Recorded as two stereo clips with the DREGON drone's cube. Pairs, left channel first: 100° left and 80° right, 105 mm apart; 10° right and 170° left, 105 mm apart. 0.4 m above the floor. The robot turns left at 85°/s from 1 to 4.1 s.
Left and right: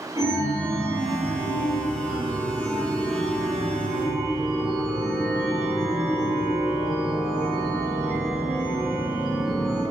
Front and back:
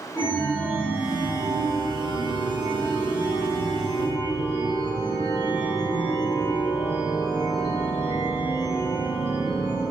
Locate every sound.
0.1 s a chime: 85° right, 1.0 m; by 9.8 s 10° left, 1.0 m